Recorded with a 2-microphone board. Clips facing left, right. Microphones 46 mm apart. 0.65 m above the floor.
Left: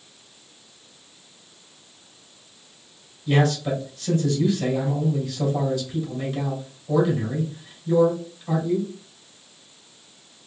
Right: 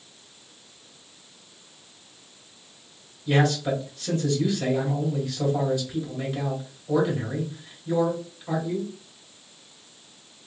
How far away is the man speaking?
About 2.5 m.